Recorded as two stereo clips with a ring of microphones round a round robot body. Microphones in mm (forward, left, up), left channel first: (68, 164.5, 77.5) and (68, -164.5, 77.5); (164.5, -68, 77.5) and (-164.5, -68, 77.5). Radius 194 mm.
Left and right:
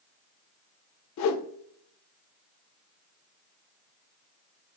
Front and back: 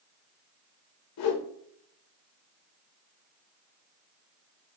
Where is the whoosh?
45° left, 0.5 m.